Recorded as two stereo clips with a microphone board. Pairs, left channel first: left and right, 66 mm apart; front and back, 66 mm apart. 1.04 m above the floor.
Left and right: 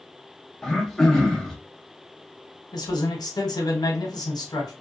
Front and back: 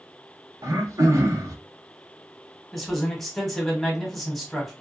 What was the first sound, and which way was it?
Throat clearing, 175° left.